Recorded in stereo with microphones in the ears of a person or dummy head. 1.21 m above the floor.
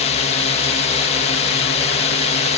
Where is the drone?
40° left (ahead or behind).